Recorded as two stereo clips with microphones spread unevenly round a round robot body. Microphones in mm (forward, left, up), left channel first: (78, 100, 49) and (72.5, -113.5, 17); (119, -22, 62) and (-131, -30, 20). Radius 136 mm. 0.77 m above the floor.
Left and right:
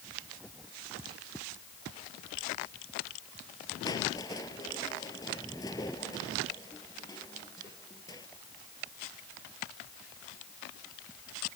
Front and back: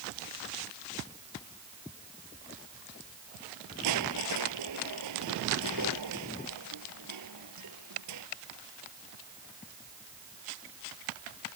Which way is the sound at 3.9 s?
165° left.